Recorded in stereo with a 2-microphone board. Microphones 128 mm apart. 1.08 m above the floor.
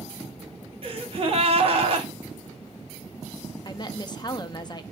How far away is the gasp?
About 1.0 m.